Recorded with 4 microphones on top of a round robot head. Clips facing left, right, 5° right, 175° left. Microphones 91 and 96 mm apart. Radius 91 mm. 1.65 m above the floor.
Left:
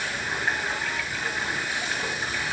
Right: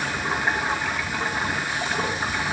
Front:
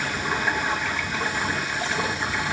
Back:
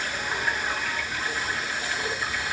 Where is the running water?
35° right, 2.5 m.